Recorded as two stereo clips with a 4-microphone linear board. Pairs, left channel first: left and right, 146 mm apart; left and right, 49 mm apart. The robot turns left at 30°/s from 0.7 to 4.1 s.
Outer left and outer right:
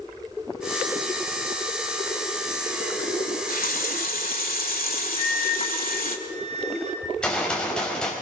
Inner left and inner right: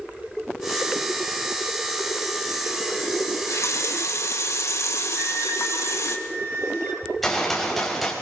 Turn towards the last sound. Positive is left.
turn(degrees=5)  # may be behind; listen again after turning